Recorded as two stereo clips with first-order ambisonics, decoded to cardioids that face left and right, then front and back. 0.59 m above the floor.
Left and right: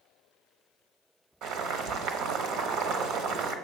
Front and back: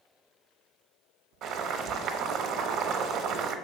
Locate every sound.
1.4 s boiling: 130° right, 0.6 m